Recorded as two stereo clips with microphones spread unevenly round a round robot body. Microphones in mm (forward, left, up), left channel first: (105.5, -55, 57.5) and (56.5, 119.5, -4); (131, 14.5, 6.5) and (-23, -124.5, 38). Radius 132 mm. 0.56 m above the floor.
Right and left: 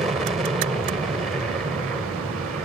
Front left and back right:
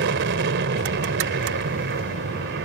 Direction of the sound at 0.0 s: 175° right.